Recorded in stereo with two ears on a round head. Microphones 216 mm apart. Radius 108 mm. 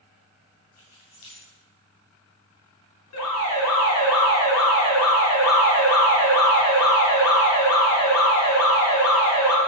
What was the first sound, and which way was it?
Keys jangling, 75° left (ahead or behind).